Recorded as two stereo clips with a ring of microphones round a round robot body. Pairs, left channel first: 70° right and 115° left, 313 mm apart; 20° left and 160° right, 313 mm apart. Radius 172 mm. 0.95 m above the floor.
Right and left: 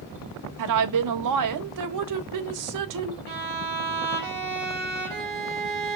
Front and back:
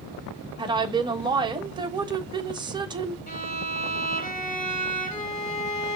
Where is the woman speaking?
125° left, 1.4 m.